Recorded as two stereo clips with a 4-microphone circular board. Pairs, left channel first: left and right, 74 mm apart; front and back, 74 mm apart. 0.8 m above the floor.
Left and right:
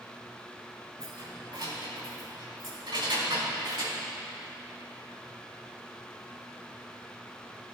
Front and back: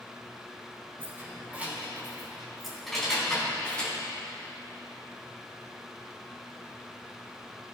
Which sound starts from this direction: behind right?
Keys jangling, at 1.0 s.